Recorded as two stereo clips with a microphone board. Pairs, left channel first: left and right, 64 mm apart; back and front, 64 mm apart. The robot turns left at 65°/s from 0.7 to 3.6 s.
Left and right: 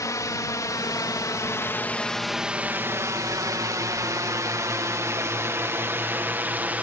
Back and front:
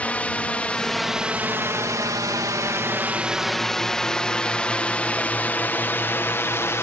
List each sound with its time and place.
0.0 s a drone: 115° left; by 6.8 s 150° right